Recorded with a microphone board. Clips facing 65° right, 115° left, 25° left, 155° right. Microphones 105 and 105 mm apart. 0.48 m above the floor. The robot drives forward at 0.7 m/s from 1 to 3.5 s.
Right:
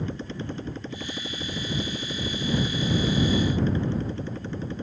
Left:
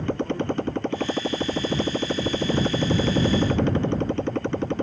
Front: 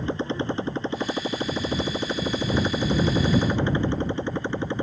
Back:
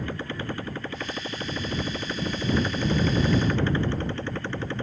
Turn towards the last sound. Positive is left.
turn(degrees=95)